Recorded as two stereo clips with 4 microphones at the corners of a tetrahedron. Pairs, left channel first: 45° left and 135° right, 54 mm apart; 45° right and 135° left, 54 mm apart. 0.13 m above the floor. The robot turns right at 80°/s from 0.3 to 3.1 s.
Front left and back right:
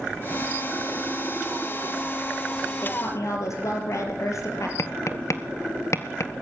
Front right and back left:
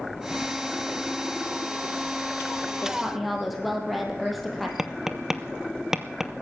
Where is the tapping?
55° left, 1.2 m.